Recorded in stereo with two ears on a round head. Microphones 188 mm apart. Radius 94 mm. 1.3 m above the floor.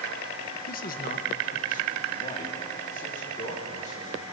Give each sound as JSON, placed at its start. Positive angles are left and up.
{"t": 0.7, "sound": "a man speaking", "side_deg": 40, "distance_m": 1.1}